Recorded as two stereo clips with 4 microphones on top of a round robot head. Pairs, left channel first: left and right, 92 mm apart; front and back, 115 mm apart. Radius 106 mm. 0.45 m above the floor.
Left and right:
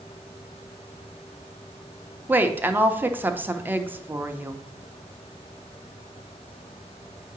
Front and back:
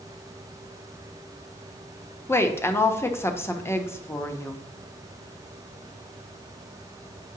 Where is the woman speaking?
40° right, 0.9 m.